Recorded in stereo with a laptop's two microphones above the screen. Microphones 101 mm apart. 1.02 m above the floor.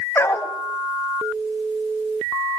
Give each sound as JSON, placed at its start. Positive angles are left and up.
{"t": 0.1, "sound": "a dog barking", "side_deg": 25, "distance_m": 1.3}